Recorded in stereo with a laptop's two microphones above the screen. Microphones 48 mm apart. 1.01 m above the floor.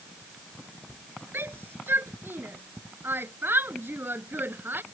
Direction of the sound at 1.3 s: 55° right (ahead or behind).